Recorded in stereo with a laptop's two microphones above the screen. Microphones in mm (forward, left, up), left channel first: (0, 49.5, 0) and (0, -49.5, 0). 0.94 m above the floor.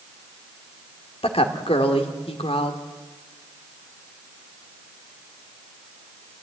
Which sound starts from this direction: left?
A woman speaking, at 1.2 s.